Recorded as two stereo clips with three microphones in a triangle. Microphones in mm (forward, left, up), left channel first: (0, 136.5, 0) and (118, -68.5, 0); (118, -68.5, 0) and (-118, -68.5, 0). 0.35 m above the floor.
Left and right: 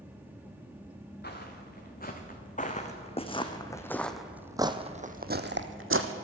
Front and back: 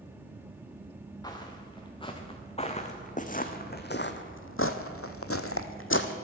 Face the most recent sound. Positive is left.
turn(degrees=-35)